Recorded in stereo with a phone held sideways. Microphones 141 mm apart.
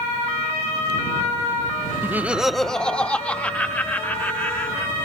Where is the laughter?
15° right (ahead or behind); by 4.9 s 15° left (ahead or behind).